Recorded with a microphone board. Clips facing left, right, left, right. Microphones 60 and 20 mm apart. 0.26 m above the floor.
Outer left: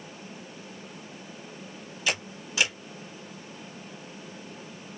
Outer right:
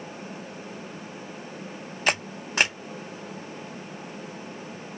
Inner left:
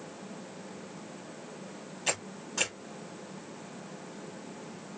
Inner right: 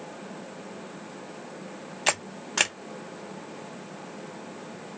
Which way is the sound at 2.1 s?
50° right (ahead or behind).